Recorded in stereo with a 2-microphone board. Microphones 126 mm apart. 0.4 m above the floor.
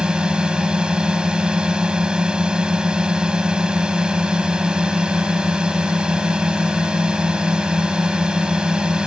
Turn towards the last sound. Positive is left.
turn(degrees=-5)  # may be behind; listen again after turning